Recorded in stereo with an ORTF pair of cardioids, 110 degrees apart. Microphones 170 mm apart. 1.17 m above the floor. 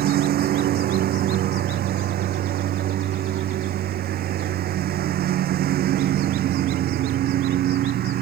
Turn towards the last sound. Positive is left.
turn(degrees=-65)